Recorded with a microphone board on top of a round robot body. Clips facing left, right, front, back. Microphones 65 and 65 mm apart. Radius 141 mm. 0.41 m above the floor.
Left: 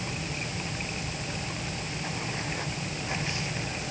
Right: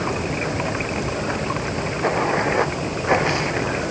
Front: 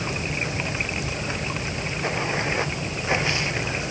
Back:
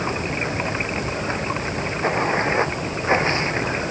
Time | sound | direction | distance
0.0 | running water | 125° right | ?